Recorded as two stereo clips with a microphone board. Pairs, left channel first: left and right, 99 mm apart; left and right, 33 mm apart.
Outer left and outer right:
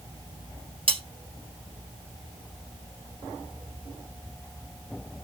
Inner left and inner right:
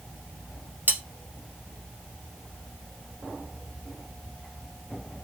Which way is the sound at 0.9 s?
65° right (ahead or behind).